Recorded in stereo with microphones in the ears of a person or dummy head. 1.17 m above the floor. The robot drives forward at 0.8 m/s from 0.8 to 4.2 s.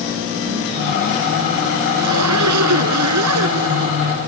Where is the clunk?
I don't hear a clunk.